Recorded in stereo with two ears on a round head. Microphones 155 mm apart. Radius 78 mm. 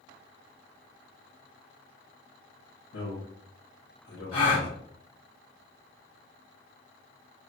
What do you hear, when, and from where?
2.9 s a man speaking: 75° left (ahead or behind), 1.5 m; by 4.8 s 55° left (ahead or behind), 1.4 m
4.3 s a gasp: 30° left (ahead or behind), 1.9 m